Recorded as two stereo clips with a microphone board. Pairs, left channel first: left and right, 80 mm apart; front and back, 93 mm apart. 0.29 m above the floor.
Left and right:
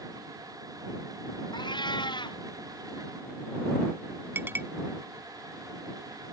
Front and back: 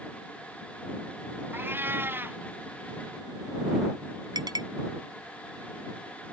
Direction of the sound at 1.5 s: 110° left.